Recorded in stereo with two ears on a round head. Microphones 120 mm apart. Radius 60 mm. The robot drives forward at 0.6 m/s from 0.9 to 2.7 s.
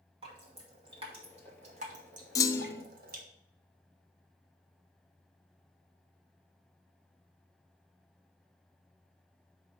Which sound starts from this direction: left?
A clunk, at 2.4 s.